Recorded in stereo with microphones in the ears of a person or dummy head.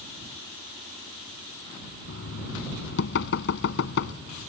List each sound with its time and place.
2.1 s knocking: 60° left (ahead or behind)